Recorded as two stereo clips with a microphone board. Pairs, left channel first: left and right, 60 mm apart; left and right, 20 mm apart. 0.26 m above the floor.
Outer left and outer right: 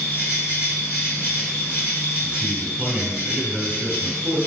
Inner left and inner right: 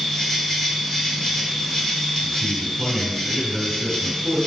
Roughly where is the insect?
Left.